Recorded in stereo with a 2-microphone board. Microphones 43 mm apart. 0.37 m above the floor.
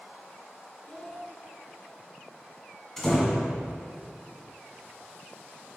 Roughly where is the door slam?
Centre.